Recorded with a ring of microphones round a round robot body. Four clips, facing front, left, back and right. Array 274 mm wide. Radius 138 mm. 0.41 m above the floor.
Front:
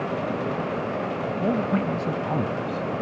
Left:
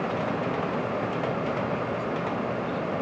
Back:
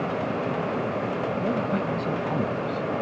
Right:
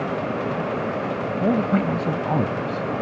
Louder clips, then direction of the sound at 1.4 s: Right 8 dB, front 5 dB; 70° right.